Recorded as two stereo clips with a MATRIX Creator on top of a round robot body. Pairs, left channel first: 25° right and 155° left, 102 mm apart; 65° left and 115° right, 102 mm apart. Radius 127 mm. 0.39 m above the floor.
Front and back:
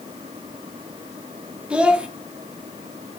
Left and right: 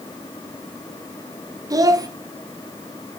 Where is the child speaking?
130° right, 0.6 m.